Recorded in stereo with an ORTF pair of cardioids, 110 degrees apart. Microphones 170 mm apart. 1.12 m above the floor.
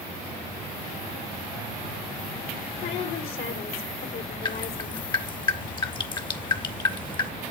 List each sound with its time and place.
2.8 s a woman speaking: 70° left, 3 m
4.5 s dripping: 30° left, 1.5 m